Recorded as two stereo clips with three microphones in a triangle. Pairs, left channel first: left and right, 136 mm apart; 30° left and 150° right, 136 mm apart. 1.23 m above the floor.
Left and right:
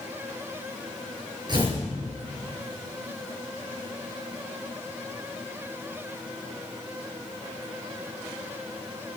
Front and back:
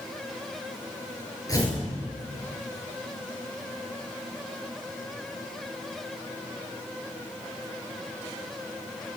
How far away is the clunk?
I don't hear a clunk.